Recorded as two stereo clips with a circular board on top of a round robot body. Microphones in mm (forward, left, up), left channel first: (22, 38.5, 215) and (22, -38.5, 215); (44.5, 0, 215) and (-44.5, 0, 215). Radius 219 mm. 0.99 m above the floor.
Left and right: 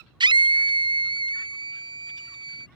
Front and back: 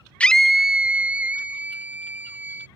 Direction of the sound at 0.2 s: 75° right.